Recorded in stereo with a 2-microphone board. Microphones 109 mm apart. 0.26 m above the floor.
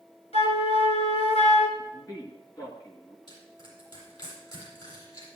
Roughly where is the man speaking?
Left.